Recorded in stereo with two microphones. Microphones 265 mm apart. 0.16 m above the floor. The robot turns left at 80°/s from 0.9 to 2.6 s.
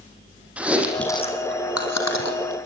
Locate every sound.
0.6 s chewing: 5° right (ahead or behind), 4.5 m; by 2.7 s 50° left (ahead or behind), 4.5 m